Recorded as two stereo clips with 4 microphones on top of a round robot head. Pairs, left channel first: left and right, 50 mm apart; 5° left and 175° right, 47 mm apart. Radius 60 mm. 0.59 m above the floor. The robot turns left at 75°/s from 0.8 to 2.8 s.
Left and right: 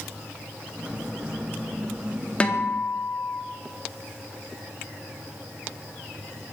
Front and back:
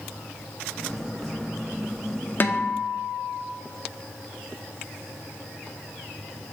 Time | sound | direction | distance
2.4 | a guitar | 30° left | 0.8 m